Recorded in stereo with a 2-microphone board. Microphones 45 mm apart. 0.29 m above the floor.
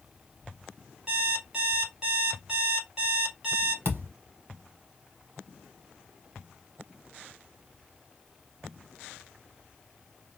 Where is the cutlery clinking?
I don't hear cutlery clinking.